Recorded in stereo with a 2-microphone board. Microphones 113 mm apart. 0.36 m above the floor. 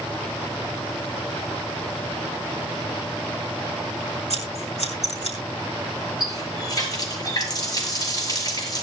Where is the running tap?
35° left (ahead or behind), 5 m.